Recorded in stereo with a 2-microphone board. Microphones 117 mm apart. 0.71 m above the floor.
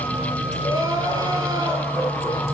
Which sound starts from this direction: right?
Crying, at 0.6 s.